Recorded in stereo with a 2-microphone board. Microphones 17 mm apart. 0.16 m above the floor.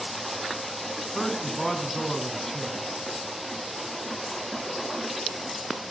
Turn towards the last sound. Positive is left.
turn(degrees=15)  # may be behind; listen again after turning